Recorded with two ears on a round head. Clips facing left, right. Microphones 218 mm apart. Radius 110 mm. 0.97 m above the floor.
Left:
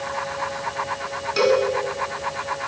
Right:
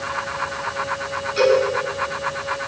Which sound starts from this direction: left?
A cowbell, at 1.4 s.